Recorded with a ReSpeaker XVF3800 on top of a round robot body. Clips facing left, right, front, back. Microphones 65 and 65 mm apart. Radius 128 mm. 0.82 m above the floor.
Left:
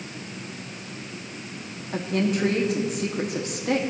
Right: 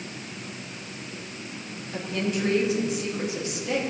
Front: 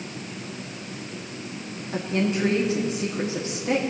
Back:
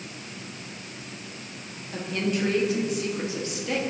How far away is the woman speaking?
About 2.5 m.